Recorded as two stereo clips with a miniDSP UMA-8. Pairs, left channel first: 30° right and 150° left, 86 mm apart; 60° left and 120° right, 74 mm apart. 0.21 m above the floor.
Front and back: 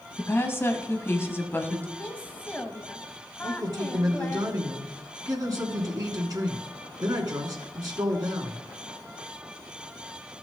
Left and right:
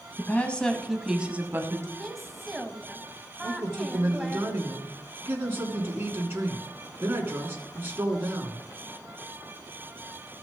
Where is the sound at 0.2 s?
15° left, 1.4 m; by 1.9 s 90° right, 1.4 m.